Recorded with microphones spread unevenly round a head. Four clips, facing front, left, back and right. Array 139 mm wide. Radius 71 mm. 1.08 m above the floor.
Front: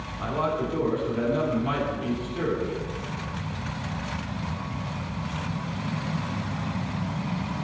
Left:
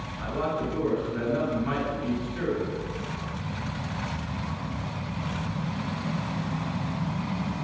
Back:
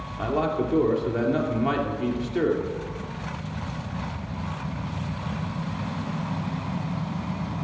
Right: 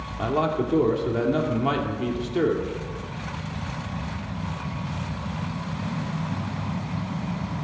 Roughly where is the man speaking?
Behind right.